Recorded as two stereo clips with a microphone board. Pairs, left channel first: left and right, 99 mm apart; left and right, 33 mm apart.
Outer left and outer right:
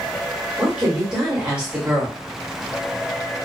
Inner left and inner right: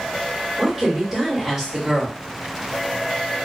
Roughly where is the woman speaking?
Centre.